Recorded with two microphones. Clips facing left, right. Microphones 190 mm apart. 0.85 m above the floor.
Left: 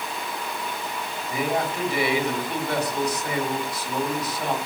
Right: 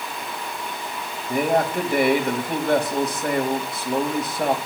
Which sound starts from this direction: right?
A man speaking, at 1.3 s.